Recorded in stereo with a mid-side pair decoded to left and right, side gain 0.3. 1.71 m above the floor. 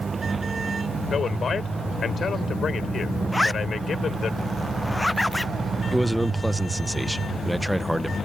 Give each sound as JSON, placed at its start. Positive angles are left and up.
{"t": 1.1, "sound": "a man speaking", "azimuth_deg": 60}
{"t": 3.3, "sound": "a zipper", "azimuth_deg": 15}
{"t": 5.9, "sound": "a man speaking", "azimuth_deg": -5}